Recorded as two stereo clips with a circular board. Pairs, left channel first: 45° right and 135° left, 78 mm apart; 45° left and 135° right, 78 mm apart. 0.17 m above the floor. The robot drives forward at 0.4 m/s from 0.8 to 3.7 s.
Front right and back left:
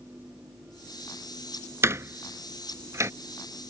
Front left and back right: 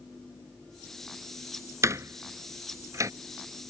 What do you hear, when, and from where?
1.8 s a door slam: 175° right; by 3.1 s straight behind